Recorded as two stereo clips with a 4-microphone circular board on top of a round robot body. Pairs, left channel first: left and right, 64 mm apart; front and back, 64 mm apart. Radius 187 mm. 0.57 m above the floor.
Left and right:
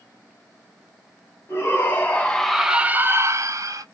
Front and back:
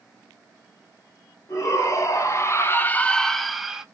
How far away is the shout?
About 1.0 m.